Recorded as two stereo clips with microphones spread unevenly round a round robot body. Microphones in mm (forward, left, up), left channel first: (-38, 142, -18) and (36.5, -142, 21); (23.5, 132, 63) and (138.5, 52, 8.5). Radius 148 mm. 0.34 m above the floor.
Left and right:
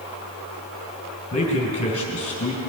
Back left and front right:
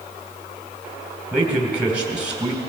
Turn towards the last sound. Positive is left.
turn(degrees=35)